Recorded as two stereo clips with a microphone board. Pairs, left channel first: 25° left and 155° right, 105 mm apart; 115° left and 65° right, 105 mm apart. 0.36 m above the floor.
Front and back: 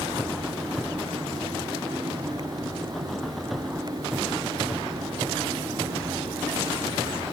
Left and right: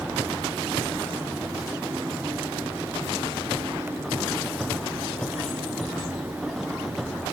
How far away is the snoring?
No snoring in this recording.